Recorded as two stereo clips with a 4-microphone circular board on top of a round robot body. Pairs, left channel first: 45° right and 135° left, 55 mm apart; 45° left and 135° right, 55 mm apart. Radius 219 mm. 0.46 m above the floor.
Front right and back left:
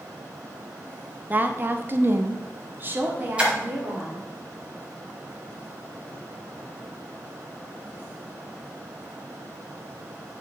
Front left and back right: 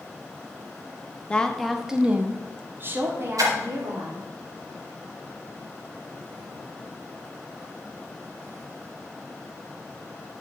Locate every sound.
1.3 s a woman speaking: 105° left, 1.0 m; by 4.2 s 165° right, 2.5 m
3.4 s a splash: 155° right, 0.8 m